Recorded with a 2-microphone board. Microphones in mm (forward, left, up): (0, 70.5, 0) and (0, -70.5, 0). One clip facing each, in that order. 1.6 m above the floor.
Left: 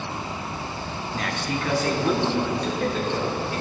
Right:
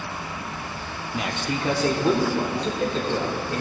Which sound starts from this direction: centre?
A man speaking, at 1.1 s.